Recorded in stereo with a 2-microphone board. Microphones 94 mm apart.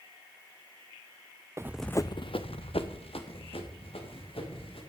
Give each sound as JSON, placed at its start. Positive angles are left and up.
{"t": 1.6, "sound": "running footsteps", "side_deg": -30, "distance_m": 0.6}